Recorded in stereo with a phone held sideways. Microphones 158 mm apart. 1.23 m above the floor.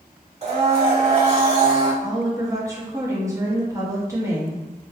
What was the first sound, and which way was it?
A blender, 40° right (ahead or behind).